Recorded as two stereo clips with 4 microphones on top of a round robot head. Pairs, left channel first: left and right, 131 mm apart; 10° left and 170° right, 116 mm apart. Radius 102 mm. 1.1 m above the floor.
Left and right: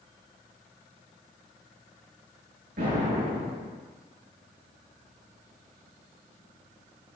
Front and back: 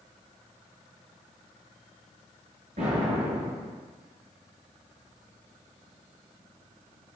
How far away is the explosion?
About 8 m.